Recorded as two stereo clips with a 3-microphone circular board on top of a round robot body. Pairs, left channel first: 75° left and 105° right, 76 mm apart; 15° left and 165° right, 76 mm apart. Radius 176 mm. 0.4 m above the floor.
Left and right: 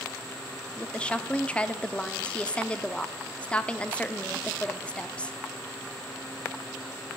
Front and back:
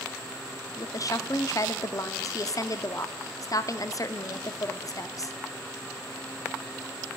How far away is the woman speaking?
About 1.2 m.